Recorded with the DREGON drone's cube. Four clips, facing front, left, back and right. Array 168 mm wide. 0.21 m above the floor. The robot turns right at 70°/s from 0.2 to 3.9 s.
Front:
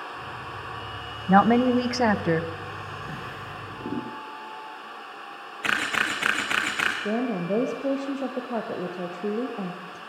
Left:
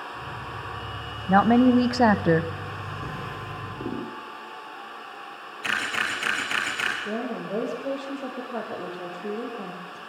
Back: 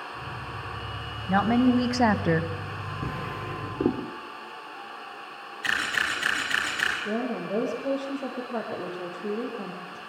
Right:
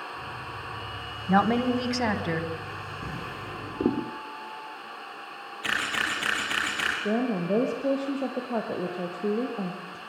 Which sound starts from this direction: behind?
A drawer, at 3.0 s.